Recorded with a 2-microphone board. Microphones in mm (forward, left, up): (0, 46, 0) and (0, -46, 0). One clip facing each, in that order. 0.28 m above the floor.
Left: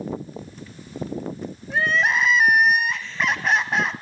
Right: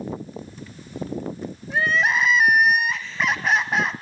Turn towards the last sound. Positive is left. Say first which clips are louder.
# even
turn(degrees=0)  # may be behind; listen again after turning